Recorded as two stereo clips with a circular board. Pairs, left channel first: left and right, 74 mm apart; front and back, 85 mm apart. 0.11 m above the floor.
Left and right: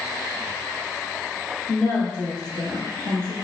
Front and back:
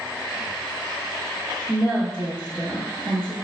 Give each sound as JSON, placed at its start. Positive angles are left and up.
{"t": 1.7, "sound": "a woman speaking", "azimuth_deg": 130, "distance_m": 1.5}